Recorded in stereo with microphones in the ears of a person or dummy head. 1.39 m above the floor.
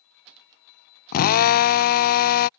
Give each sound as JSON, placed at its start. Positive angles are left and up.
{"t": 1.1, "sound": "a drill", "side_deg": 45}